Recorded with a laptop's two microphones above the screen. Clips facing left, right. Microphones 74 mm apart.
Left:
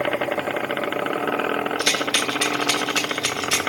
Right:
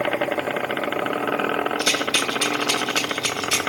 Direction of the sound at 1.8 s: 75° left (ahead or behind).